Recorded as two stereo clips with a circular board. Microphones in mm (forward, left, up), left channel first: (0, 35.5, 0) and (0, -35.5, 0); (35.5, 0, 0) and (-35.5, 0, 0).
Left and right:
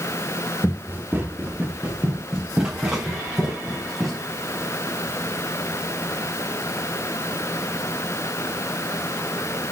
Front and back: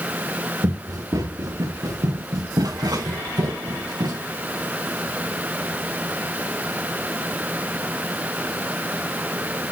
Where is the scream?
I don't hear a scream.